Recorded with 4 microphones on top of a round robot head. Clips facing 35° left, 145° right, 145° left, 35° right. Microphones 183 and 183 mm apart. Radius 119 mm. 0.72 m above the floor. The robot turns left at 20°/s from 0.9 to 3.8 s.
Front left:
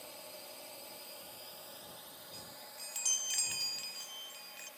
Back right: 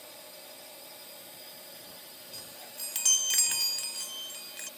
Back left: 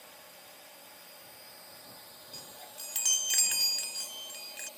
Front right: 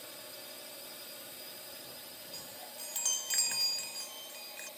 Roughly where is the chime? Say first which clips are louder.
Back right 4 dB, even; behind right.